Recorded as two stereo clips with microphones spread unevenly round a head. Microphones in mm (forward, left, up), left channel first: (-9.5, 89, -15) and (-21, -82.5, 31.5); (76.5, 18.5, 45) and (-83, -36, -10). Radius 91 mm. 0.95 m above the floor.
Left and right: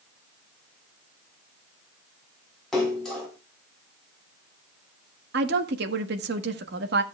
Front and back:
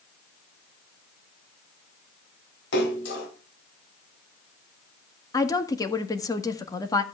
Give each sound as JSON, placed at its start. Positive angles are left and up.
{"t": 2.7, "sound": "a splash", "azimuth_deg": 0, "distance_m": 4.5}
{"t": 5.3, "sound": "a woman speaking", "azimuth_deg": -55, "distance_m": 1.4}